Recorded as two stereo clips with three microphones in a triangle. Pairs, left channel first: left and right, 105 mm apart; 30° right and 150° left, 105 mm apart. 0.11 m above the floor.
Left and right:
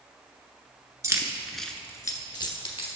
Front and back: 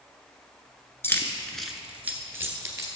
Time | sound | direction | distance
1.0 | keys jangling | 75° right | 0.8 m